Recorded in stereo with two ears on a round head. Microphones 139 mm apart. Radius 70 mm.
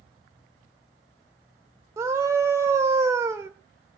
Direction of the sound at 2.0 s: 20° right (ahead or behind).